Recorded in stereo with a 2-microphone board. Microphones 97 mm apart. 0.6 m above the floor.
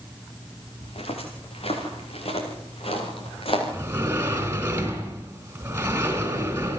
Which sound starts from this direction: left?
Footsteps, at 0.8 s.